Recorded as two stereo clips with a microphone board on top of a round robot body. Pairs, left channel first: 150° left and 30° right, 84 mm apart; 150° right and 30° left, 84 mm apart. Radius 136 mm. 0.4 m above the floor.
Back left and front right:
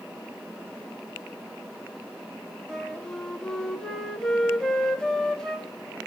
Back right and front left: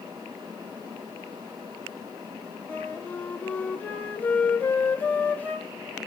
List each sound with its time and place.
2.7 s a flute: 145° right, 1.5 m